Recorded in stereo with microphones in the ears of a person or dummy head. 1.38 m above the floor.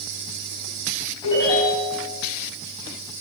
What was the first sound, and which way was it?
A ringtone, 25° left (ahead or behind).